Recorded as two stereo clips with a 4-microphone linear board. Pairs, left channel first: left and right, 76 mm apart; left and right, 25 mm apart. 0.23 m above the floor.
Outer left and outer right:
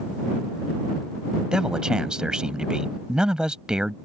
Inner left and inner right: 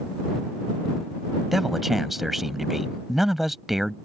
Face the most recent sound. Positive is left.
turn(degrees=-10)  # may be behind; listen again after turning